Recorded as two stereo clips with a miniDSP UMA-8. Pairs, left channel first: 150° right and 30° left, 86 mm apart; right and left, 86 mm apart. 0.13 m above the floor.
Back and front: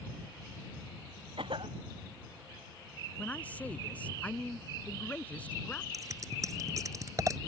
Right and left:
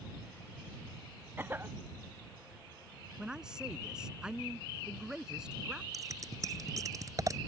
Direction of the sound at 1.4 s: 25° left.